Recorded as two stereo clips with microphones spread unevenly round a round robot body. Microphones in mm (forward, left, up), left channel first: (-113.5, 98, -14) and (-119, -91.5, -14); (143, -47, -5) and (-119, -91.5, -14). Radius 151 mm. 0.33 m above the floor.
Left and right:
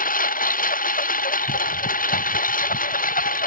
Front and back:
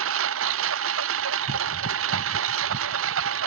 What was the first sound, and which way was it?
A lawn mower, 135° left.